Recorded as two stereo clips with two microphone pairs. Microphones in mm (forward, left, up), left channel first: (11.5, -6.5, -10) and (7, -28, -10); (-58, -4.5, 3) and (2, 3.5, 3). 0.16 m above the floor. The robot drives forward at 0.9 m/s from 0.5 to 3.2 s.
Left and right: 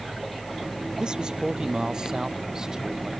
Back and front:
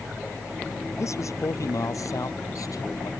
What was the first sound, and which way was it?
A man speaking, 145° right.